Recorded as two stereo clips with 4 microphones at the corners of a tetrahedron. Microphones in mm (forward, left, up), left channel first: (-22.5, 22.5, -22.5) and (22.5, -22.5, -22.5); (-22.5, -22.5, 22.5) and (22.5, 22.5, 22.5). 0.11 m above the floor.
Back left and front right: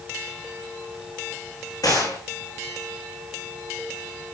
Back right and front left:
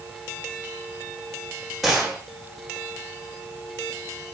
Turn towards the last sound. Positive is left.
turn(degrees=135)